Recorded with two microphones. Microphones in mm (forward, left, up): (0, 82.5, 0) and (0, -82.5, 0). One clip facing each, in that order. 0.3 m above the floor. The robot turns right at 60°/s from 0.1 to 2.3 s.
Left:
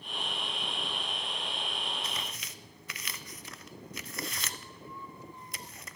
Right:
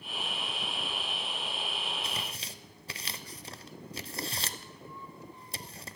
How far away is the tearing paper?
About 0.5 m.